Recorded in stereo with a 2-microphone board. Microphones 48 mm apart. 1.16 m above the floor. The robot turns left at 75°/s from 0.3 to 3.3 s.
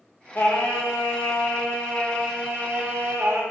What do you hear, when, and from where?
0.3 s singing: 130° left, 1.3 m; by 3.4 s 90° right, 1.3 m